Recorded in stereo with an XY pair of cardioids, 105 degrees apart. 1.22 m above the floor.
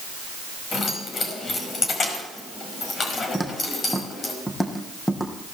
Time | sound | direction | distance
0.7 | keys jangling | 45° left | 5 m
3.3 | footsteps | 10° left | 4 m